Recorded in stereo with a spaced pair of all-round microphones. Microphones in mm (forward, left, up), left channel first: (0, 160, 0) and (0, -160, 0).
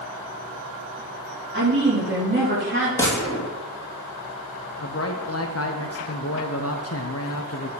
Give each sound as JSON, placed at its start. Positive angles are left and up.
{"t": 1.5, "sound": "a woman speaking", "side_deg": -35, "distance_m": 3.5}
{"t": 3.0, "sound": "a gunshot", "side_deg": 10, "distance_m": 2.0}
{"t": 4.8, "sound": "a man speaking", "side_deg": 45, "distance_m": 0.7}